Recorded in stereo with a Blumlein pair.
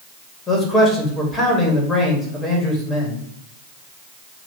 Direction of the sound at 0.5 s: 15° left.